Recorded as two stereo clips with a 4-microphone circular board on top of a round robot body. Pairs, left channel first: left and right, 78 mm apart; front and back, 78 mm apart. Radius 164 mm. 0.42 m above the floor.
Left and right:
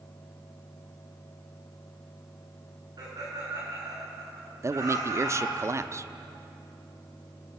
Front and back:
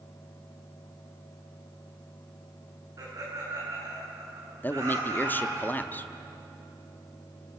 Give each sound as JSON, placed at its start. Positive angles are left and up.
{"t": 3.0, "sound": "laughter", "azimuth_deg": -130, "distance_m": 8.5}
{"t": 4.6, "sound": "a man speaking", "azimuth_deg": -55, "distance_m": 1.0}